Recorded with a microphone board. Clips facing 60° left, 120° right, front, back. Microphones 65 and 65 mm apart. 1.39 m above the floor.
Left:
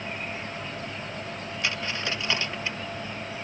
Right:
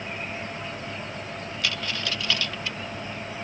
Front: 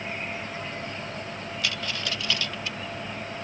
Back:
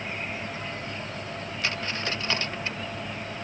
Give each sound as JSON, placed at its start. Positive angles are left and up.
{"t": 1.6, "sound": "a dropped coin", "azimuth_deg": 125}